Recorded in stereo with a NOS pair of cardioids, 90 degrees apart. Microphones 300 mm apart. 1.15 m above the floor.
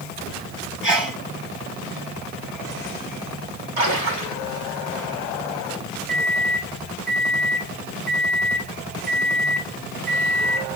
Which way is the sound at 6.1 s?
Straight ahead.